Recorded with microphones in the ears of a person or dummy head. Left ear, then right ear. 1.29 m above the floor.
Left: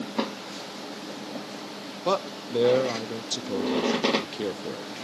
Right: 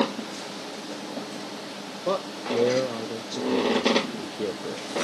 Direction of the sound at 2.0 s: 25° left (ahead or behind).